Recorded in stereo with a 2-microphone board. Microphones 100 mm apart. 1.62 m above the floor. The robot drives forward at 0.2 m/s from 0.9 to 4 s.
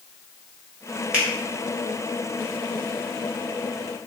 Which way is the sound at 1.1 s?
15° right (ahead or behind).